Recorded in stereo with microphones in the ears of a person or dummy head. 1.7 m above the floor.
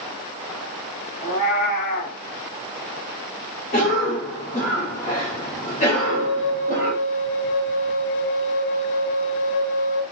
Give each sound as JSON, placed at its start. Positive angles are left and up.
{"t": 1.2, "sound": "a cat meowing", "side_deg": 35, "distance_m": 2.0}
{"t": 3.7, "sound": "a cough", "side_deg": 30, "distance_m": 1.9}
{"t": 5.9, "sound": "a flute", "side_deg": 60, "distance_m": 0.8}